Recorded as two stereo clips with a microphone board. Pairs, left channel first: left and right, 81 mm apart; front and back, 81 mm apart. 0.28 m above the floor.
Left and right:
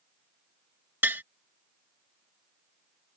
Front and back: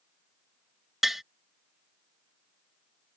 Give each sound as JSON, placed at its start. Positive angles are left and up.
{"t": 1.0, "sound": "tapping", "azimuth_deg": -95}